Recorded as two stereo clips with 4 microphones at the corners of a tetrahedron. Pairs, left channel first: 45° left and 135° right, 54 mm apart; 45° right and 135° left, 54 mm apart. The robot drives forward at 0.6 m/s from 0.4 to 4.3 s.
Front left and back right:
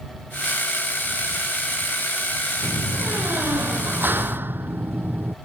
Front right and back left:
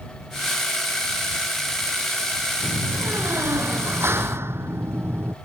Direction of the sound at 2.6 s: 175° left.